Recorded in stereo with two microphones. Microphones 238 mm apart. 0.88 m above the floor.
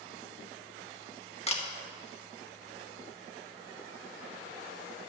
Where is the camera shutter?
25° left (ahead or behind), 1.2 m.